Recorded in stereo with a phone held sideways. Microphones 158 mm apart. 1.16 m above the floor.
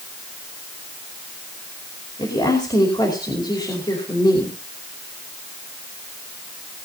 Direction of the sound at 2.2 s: 25° left (ahead or behind).